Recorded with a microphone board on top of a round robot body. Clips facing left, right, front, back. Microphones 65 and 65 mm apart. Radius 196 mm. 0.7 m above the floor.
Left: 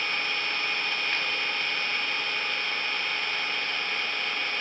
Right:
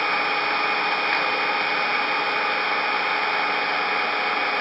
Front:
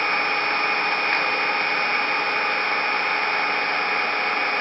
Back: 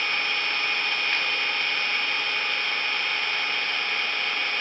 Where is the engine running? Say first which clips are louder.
Right 8 dB, front 5 dB; 50° right.